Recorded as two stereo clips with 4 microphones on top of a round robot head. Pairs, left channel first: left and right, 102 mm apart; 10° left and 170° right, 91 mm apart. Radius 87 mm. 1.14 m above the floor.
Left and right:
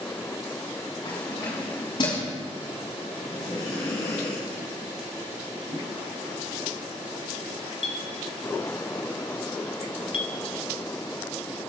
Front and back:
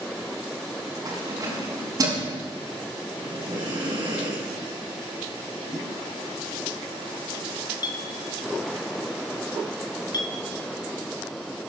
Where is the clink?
60° left, 1.5 m.